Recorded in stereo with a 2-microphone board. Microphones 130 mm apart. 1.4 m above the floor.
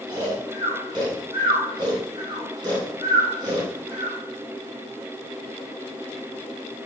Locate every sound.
0.1 s snoring: 35° right (ahead or behind), 3.5 m